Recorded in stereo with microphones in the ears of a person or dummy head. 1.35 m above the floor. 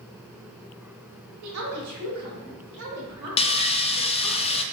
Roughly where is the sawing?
Left.